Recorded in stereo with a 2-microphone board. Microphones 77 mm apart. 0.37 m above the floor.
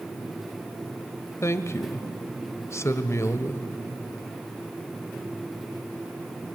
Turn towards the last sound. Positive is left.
turn(degrees=35)  # may be behind; listen again after turning